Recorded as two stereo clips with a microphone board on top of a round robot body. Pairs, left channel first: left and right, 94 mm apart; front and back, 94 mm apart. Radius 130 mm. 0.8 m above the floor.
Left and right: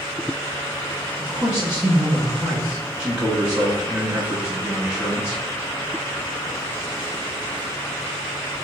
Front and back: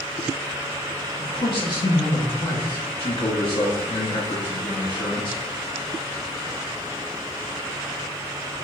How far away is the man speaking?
About 1.3 m.